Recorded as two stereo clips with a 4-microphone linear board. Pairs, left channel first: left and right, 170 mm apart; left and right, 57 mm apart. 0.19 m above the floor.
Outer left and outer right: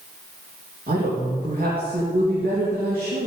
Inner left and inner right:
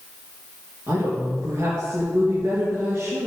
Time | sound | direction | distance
0.9 | a woman speaking | 60° right (ahead or behind) | 3 m